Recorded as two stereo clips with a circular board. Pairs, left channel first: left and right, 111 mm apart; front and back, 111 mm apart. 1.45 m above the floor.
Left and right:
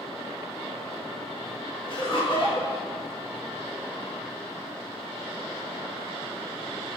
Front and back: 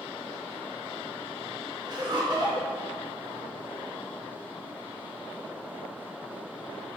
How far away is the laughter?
About 1.9 m.